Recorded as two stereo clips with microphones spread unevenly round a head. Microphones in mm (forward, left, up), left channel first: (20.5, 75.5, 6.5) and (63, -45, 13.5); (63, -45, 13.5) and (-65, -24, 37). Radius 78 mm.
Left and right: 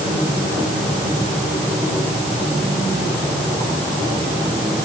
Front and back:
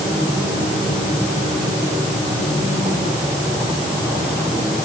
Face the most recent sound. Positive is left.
No sound to turn to.